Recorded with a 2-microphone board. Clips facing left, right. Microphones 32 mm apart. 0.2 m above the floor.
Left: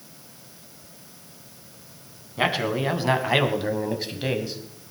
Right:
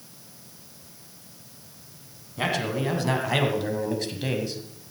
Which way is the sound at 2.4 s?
25° left (ahead or behind).